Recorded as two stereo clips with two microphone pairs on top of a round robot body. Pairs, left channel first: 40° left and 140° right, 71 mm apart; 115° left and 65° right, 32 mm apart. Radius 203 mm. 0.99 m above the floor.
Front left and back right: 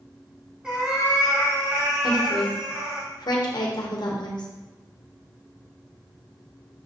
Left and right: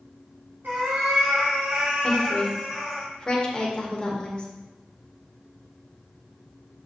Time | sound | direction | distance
0.6 | a cat meowing | 60° right | 1.5 m
2.0 | a woman speaking | 55° left | 1.5 m